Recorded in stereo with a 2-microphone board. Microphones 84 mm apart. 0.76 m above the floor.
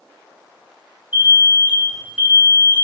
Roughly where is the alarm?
Centre.